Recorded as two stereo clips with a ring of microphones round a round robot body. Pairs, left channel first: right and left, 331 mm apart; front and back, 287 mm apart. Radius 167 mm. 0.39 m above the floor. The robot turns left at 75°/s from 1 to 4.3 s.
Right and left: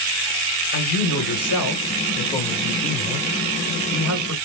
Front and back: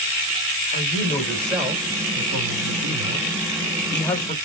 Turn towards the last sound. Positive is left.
turn(degrees=60)